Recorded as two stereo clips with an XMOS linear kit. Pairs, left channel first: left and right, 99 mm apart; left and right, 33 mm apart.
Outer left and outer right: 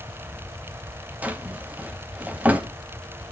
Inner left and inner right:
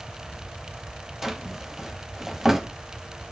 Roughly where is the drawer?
Centre.